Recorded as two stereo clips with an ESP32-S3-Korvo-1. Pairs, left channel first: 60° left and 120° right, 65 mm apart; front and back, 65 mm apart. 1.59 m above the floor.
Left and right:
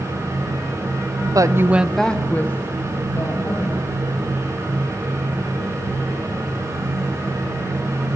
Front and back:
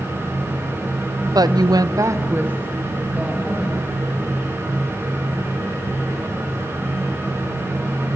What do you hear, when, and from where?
1.2 s a woman speaking: 145° right, 1.0 m; by 4.2 s 100° left, 4 m